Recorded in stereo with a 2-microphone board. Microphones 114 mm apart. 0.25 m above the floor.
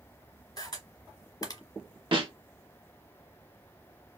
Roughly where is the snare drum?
Right.